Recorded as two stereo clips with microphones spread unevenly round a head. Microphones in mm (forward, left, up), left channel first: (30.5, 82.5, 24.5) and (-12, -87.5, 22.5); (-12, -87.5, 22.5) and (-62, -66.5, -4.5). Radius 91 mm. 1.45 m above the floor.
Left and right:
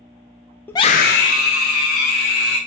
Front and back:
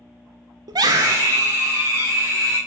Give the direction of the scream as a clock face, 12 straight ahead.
7 o'clock.